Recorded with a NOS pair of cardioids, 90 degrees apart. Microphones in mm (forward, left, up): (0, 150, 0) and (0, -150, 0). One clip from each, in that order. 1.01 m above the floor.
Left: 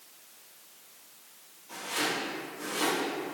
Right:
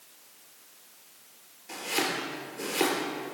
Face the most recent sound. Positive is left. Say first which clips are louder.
# right 2 dB
turn(degrees=-65)